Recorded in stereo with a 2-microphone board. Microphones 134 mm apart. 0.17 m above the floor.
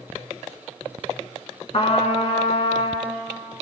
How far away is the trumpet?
About 0.5 m.